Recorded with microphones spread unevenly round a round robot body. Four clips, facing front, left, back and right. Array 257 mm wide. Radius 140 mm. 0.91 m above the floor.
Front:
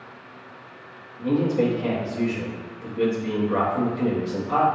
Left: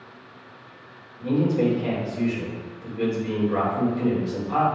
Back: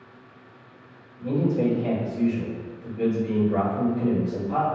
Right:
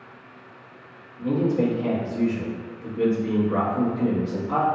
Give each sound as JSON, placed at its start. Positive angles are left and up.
{"t": 1.2, "sound": "a man speaking", "azimuth_deg": -40, "distance_m": 1.7}